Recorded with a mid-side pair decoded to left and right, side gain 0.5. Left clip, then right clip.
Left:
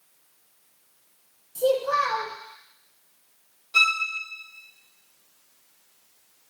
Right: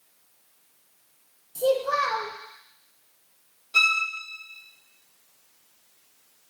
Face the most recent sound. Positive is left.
turn(degrees=-5)